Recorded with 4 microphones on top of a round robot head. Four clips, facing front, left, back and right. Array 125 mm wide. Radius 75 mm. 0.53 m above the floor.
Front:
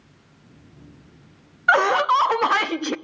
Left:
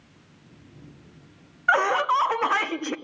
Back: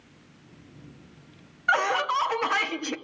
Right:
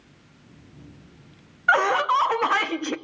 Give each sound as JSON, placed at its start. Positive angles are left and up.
{"t": 1.7, "sound": "laughter", "azimuth_deg": -5, "distance_m": 0.7}